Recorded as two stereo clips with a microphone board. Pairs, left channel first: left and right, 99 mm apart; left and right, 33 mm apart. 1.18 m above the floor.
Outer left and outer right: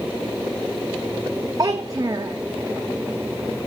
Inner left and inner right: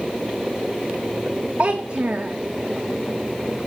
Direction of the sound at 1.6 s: 35° right (ahead or behind).